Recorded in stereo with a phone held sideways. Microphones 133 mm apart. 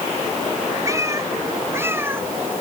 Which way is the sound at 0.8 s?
25° right (ahead or behind).